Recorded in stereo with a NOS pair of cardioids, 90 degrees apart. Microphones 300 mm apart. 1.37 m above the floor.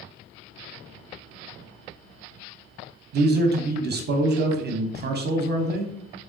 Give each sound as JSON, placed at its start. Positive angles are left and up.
{"t": 3.1, "sound": "a man speaking", "azimuth_deg": -35, "distance_m": 0.6}